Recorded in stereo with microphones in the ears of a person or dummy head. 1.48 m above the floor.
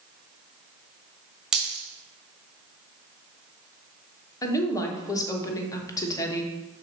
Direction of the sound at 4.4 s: 20° left (ahead or behind).